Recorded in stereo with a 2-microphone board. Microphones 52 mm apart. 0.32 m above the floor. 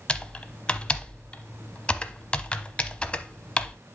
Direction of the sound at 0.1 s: 20° left (ahead or behind).